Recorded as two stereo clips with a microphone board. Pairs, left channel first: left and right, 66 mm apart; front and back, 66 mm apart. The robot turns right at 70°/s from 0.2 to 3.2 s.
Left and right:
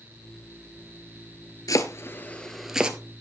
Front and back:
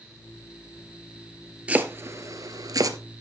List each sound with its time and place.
1.7 s chopping: 115° left, 1.1 m; by 3.0 s 155° right, 1.1 m